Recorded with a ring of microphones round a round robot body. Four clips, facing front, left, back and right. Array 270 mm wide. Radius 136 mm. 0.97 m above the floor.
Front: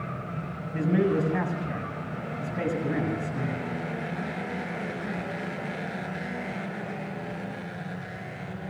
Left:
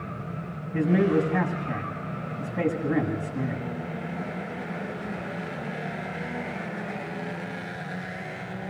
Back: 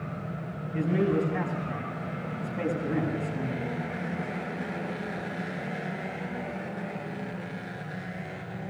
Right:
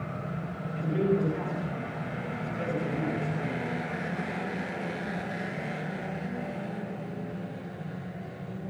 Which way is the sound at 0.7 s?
70° left.